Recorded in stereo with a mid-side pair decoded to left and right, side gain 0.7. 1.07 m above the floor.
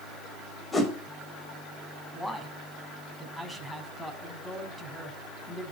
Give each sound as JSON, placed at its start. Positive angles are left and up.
{"t": 0.7, "sound": "a whoosh", "azimuth_deg": 20, "distance_m": 5.0}
{"t": 2.1, "sound": "a man speaking", "azimuth_deg": 0, "distance_m": 7.0}